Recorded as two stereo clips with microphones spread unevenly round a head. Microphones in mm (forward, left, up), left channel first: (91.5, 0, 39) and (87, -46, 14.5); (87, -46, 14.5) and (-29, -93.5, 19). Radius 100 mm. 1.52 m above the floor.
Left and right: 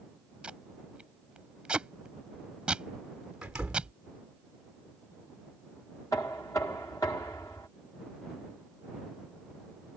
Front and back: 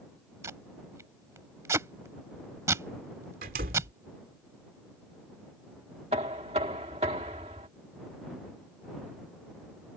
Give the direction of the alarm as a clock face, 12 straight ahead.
No alarm in this recording.